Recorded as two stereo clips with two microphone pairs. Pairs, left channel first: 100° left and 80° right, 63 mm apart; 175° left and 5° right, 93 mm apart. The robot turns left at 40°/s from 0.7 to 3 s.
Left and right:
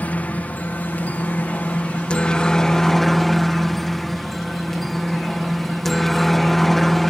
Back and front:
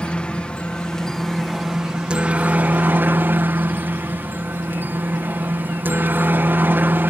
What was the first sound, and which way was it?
A helicopter, 110° left.